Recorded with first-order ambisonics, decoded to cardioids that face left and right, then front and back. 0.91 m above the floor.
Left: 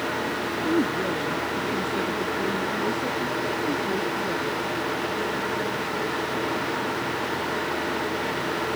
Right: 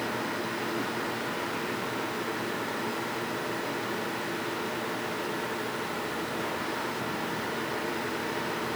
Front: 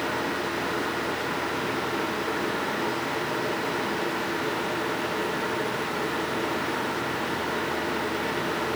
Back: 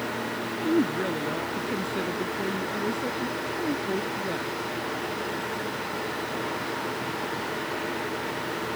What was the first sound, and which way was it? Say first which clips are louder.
A woman speaking: left 7 dB, back 2 dB; 135° left.